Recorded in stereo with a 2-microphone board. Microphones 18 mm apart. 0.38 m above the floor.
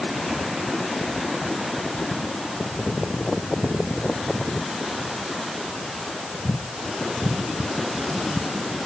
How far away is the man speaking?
No man speaking in this recording.